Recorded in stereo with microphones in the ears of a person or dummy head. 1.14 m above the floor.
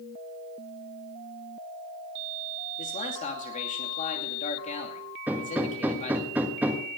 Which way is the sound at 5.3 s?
10° right (ahead or behind).